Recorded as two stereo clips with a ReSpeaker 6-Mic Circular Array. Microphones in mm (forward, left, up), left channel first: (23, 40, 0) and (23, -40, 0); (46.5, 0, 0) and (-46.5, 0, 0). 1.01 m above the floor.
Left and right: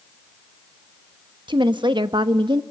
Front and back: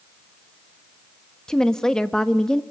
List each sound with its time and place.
1.5 s a woman speaking: 85° right, 1.2 m